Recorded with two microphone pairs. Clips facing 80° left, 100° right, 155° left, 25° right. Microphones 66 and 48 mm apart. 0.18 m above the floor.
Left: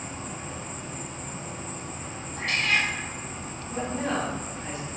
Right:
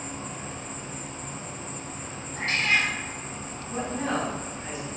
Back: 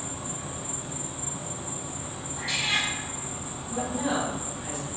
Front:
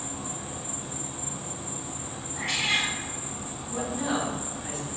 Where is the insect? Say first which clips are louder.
Even, even; 160° left, 1.0 m.